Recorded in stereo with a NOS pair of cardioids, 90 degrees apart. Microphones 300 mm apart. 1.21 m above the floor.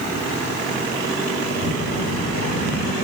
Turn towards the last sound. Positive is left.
turn(degrees=55)